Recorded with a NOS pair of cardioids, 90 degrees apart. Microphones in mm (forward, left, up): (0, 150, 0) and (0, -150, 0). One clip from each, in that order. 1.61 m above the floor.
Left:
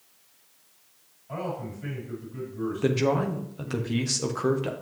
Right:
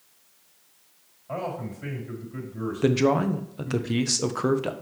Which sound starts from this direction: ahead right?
A man speaking, at 1.3 s.